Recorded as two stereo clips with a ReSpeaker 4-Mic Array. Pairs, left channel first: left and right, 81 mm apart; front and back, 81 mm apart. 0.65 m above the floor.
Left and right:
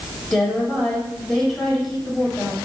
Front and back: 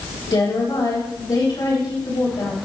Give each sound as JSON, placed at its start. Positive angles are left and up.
{"t": 0.3, "sound": "a woman speaking", "azimuth_deg": 5, "distance_m": 4.0}